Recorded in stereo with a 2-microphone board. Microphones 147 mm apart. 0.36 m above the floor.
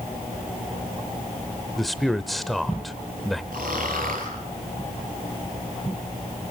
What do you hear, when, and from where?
1.8 s a man speaking: centre (ahead or behind), 0.9 m
3.5 s snoring: 80° right, 5.5 m